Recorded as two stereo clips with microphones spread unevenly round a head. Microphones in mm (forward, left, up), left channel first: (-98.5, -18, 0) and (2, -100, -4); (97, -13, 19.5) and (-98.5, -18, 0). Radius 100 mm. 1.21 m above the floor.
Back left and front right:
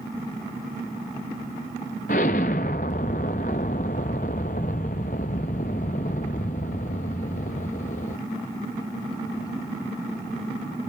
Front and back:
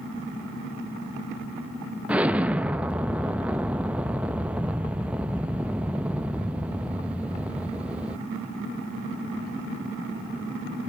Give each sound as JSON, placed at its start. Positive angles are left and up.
{"t": 2.1, "sound": "an explosion", "azimuth_deg": 95, "distance_m": 0.8}